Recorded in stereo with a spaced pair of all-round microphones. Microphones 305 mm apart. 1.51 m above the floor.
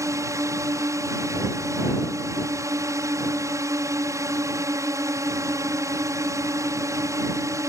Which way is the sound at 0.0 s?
10° right (ahead or behind).